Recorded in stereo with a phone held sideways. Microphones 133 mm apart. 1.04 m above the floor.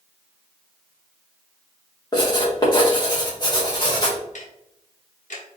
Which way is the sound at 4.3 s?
65° left (ahead or behind).